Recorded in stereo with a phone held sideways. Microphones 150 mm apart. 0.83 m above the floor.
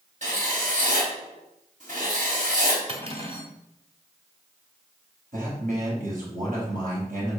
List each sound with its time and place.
0.2 s writing: 60° right (ahead or behind), 4.5 m
2.9 s cutlery clinking: 40° right (ahead or behind), 2 m
5.3 s a man speaking: 65° right (ahead or behind), 5 m